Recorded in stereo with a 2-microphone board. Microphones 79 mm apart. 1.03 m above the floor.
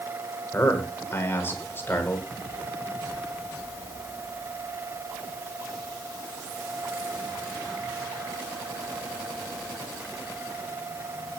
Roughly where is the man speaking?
Left.